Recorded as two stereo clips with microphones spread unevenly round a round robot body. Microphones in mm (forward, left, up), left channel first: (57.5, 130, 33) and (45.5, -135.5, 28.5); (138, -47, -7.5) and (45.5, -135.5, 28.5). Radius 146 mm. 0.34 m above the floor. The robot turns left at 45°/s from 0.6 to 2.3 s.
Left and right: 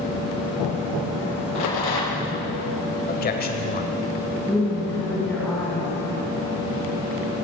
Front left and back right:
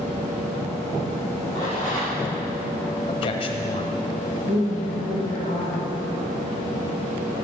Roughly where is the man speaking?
Ahead left.